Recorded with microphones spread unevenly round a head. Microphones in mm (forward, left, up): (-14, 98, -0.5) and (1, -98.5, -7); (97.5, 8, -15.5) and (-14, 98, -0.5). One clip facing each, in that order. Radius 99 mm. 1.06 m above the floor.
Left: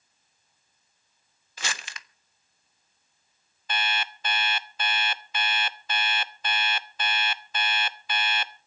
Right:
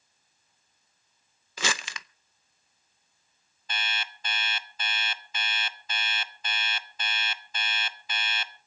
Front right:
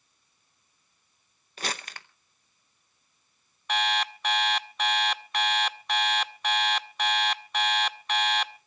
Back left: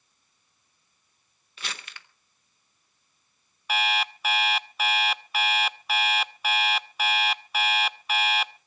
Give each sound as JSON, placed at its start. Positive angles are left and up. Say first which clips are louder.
{"t": 1.6, "sound": "crumpling", "louder": "right 6 dB, front right 6 dB", "azimuth_deg": -95, "distance_m": 0.6}
{"t": 3.7, "sound": "an alarm clock", "louder": "left 7 dB, even", "azimuth_deg": 55, "distance_m": 0.9}